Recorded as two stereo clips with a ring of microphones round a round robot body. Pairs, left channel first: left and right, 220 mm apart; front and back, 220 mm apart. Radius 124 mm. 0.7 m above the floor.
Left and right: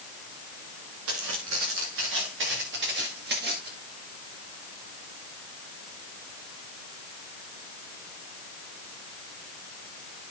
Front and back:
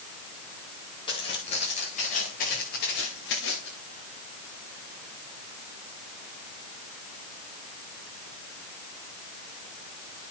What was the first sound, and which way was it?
Footsteps, 70° right.